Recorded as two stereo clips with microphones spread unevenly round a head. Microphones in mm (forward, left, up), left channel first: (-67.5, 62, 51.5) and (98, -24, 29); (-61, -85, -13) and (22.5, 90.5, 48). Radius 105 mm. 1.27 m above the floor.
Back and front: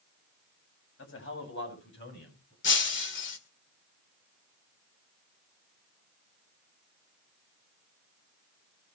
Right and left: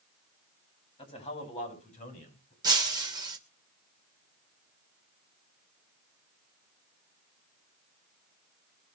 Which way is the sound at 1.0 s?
Straight behind.